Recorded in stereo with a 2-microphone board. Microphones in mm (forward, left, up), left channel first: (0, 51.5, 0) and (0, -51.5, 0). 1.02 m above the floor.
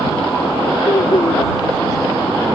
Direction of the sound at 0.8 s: 75° left (ahead or behind).